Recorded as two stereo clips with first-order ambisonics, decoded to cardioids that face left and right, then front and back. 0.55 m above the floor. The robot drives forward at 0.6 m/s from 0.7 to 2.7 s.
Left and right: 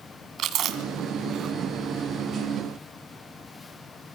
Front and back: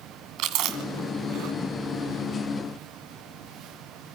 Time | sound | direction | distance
0.4 | chewing | 145° right | 2.5 m